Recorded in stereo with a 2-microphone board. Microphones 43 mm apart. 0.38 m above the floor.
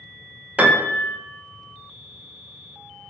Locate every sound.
0.6 s a piano: 30° right (ahead or behind), 0.7 m